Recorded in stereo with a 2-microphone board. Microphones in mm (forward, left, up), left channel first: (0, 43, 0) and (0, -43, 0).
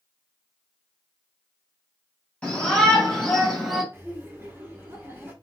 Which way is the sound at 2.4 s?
15° left (ahead or behind).